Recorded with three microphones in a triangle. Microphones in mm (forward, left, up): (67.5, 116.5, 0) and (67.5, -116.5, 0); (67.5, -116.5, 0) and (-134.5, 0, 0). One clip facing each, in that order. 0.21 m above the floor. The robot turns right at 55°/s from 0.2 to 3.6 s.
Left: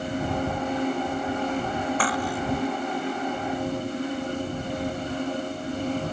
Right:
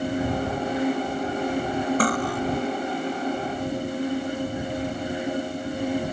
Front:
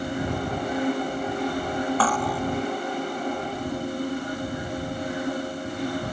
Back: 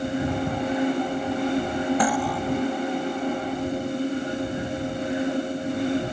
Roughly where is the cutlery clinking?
Behind right.